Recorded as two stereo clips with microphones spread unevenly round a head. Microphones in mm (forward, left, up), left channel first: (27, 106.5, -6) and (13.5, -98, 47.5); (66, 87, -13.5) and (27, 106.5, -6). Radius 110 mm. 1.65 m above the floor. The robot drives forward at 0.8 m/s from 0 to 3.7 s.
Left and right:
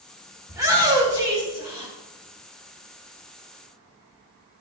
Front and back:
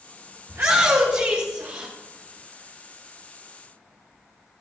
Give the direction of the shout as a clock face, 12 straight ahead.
6 o'clock.